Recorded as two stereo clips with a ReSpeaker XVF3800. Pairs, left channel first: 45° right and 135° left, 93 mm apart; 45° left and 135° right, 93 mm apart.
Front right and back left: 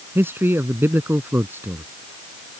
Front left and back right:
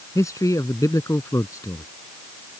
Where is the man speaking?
80° left.